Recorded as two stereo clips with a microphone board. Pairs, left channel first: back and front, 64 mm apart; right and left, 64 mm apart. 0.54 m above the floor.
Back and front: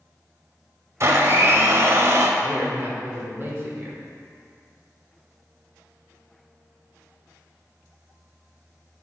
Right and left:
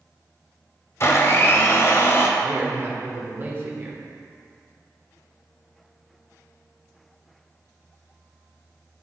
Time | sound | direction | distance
1.0 | a blender | 45° right | 0.6 m
2.4 | a man speaking | 45° left | 1.2 m